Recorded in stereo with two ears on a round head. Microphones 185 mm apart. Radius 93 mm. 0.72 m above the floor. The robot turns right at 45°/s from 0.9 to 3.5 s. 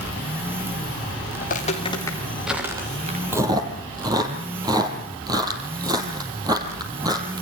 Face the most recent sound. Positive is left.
turn(degrees=-20)  # may be behind; listen again after turning